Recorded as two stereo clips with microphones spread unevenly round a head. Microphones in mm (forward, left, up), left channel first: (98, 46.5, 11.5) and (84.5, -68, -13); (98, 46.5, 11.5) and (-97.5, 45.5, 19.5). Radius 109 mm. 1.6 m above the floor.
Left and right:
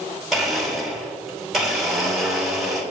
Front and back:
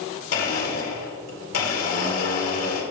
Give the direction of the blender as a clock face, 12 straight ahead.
12 o'clock.